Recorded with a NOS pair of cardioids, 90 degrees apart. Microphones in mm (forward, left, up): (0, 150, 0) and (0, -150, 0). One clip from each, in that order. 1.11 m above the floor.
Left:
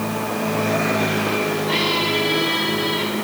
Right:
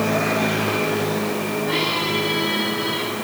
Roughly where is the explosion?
I don't hear an explosion.